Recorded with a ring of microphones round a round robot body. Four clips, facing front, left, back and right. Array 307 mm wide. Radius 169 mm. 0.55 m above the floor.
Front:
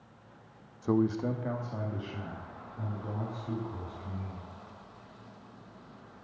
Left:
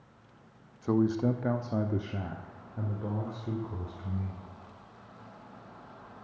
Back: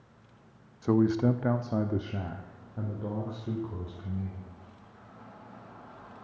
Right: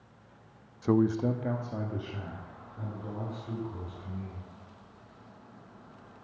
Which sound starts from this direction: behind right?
A man speaking, at 0.8 s.